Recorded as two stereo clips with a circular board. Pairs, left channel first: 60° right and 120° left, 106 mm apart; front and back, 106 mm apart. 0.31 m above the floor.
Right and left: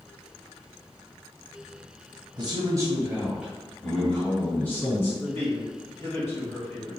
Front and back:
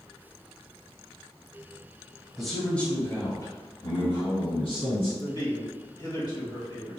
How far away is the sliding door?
I don't hear a sliding door.